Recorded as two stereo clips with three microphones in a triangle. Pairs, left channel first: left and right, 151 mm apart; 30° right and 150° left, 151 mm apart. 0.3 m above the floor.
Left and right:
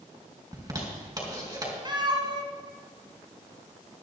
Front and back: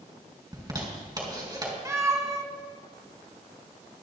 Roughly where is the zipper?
Behind right.